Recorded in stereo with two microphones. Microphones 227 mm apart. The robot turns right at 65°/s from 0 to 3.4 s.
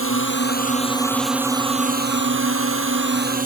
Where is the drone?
100° left; by 3.5 s 40° right.